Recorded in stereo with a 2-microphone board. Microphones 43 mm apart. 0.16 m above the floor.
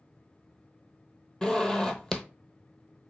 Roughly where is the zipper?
Centre.